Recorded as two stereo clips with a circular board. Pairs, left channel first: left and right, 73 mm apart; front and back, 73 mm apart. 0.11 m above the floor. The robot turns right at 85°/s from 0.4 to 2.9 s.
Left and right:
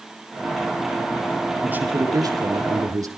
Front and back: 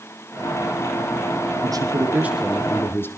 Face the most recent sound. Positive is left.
turn(degrees=-55)